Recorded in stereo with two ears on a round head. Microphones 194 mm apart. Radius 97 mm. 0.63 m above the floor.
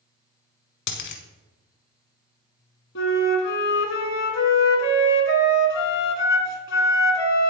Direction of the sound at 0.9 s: 55° left (ahead or behind).